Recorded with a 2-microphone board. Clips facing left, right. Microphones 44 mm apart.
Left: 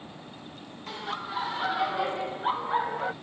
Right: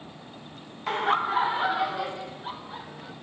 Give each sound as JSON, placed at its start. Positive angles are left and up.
{"t": 0.9, "sound": "laughter", "side_deg": -50}